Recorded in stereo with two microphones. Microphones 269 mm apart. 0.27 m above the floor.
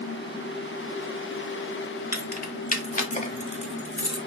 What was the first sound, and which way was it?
Keys jangling, 35° left (ahead or behind).